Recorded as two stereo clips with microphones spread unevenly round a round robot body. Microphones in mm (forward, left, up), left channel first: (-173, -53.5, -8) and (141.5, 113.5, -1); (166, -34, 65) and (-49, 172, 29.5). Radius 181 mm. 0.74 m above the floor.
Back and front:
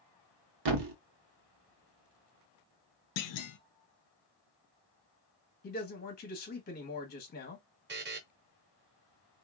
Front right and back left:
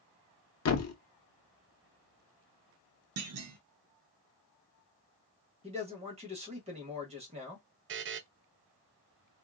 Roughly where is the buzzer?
Left.